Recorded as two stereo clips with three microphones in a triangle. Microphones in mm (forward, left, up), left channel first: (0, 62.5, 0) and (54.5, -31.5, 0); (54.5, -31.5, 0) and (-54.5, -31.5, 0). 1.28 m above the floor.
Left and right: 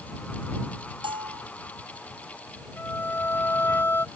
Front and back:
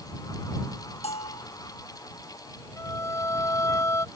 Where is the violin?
55° left.